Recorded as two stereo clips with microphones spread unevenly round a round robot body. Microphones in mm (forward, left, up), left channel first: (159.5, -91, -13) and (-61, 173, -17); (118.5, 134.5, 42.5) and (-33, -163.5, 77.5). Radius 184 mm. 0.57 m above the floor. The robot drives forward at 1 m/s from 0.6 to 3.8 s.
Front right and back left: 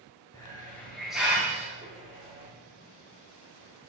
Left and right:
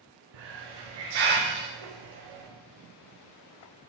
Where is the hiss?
130° right, 2.0 m; by 2.5 s 155° right, 3.5 m.